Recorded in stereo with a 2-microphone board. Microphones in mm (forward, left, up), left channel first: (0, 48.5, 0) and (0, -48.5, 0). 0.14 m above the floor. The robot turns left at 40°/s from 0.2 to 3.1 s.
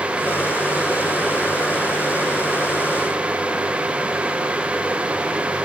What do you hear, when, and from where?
Only background noise.